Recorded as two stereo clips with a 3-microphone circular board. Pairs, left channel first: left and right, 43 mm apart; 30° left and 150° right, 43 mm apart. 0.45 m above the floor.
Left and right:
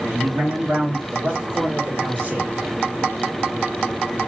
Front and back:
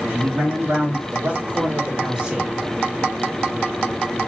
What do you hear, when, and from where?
0.1 s a man speaking: 135° right, 2.5 m; by 2.5 s 95° right, 1.5 m